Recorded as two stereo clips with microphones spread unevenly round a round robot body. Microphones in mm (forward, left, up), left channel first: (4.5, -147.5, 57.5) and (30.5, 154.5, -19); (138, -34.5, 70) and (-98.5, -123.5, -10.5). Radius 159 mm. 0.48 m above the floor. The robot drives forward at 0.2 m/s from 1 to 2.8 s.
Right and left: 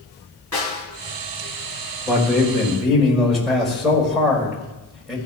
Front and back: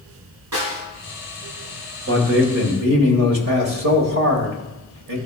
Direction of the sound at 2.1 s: 165° left.